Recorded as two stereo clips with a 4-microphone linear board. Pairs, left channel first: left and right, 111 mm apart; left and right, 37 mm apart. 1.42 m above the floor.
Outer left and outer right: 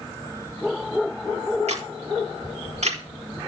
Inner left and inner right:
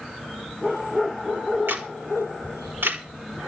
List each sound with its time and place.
1.7 s a camera shutter: 80° right, 4.5 m